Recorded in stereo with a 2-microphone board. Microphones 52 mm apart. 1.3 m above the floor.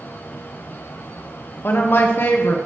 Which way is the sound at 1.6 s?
45° left (ahead or behind).